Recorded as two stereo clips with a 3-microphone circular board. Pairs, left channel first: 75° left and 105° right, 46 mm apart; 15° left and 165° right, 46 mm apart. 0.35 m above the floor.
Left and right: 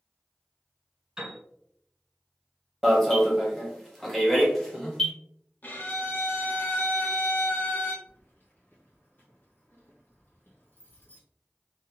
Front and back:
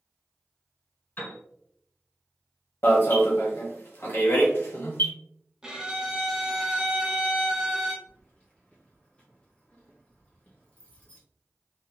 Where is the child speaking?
No child speaking in this recording.